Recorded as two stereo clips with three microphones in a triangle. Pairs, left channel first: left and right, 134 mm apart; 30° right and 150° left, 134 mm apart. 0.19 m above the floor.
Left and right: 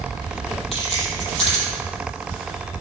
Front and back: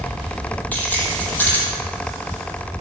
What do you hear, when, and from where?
0.7 s keys jangling: 45° left, 5 m